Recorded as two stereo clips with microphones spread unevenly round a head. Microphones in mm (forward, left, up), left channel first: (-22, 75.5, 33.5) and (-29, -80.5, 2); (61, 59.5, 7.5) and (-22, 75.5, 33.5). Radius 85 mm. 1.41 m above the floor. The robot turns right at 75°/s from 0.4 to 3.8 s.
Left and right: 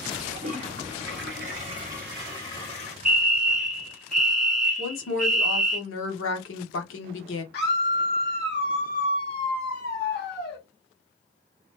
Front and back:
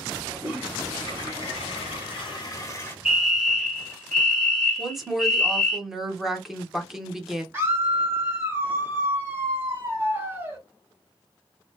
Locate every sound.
0.3 s a toilet flushing: 130° right, 1.4 m; by 3.0 s 60° left, 1.4 m
3.0 s a fire alarm: 90° right, 0.9 m; by 5.8 s 35° right, 0.9 m
4.8 s a woman speaking: 80° left, 1.0 m
7.5 s a scream: 105° left, 1.5 m